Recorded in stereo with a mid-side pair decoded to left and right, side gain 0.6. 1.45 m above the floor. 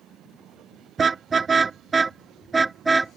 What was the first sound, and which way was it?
A car horn, 30° right.